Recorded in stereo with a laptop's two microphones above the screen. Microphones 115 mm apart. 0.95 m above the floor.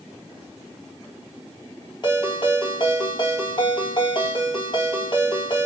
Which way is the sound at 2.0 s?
40° left (ahead or behind).